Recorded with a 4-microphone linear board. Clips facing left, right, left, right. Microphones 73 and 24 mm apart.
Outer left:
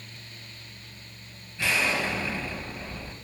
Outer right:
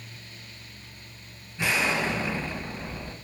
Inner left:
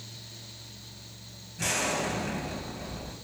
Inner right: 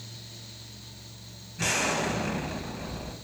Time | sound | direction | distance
1.6 | an explosion | 20° right (ahead or behind) | 0.5 m